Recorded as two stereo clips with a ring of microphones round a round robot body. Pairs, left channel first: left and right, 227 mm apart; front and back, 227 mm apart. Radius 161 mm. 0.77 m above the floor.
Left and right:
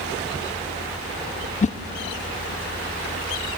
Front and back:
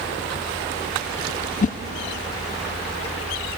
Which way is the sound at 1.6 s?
40° left.